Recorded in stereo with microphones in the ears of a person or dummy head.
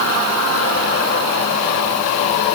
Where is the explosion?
I don't hear an explosion.